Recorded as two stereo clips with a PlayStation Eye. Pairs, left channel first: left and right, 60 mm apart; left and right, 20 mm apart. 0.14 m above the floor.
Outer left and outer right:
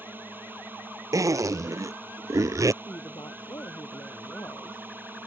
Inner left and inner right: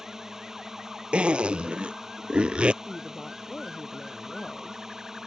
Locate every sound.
0.0 s a drone: 35° right (ahead or behind)
1.1 s a zipper: 70° right (ahead or behind)
2.8 s a woman speaking: 65° left (ahead or behind)